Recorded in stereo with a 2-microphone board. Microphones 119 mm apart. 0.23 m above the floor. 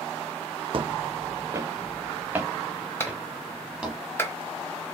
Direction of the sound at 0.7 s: 50° right (ahead or behind).